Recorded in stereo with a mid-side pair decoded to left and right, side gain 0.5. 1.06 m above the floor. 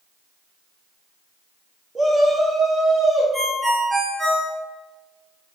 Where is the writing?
I don't hear writing.